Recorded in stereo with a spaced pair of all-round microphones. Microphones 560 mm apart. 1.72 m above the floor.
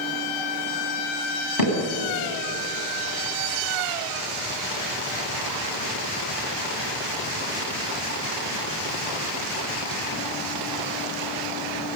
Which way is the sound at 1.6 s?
40° left (ahead or behind).